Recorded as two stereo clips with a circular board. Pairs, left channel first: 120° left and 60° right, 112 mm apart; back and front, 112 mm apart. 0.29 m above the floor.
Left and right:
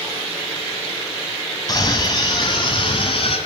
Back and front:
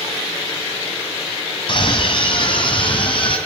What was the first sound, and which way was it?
A scream, 165° left.